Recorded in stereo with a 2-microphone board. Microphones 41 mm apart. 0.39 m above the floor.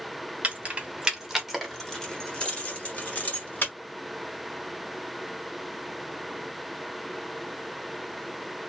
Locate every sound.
0.4 s keys jangling: 40° right (ahead or behind), 1.1 m; by 3.7 s 50° left (ahead or behind), 1.7 m